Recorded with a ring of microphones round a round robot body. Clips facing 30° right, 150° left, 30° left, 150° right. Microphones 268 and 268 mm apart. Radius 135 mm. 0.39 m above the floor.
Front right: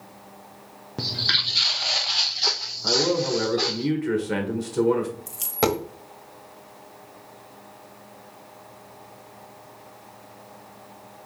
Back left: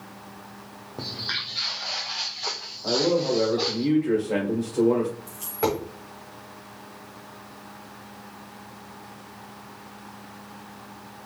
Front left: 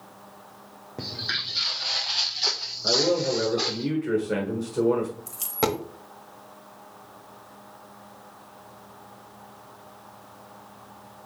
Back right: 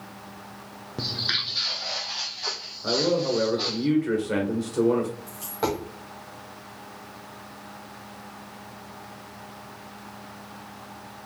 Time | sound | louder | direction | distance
1.0 | footsteps | front right 4 dB, back right 2 dB | 85° right | 0.7 m
2.8 | a man speaking | back left 1 dB, even | 65° right | 1.3 m
5.3 | a dropped coin | front right 2 dB, front left 1 dB | 5° right | 0.9 m